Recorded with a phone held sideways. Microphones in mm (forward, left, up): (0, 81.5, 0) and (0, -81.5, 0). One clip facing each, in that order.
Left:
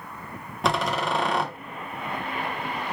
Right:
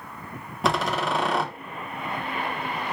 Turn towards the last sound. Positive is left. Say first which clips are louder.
# even
turn(degrees=0)  # may be behind; listen again after turning